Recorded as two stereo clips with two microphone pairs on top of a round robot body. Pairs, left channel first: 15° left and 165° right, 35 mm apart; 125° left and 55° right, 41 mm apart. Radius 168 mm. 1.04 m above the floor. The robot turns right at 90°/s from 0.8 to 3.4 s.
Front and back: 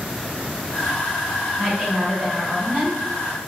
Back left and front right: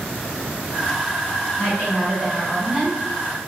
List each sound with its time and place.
1.6 s a woman speaking: 120° left, 1.5 m; by 3.0 s 110° right, 1.5 m